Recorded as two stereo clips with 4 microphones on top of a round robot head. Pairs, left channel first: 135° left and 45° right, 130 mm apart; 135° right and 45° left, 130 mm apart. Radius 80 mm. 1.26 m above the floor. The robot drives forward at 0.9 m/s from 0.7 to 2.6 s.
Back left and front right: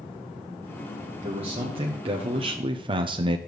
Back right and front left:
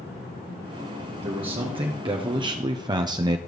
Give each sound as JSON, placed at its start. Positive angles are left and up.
{"t": 1.2, "sound": "a man speaking", "azimuth_deg": 0, "distance_m": 1.7}